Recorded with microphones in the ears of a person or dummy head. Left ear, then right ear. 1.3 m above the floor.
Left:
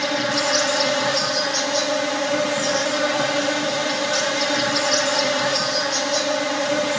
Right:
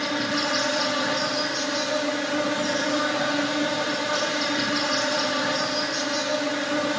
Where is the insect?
75° left (ahead or behind), 2 m.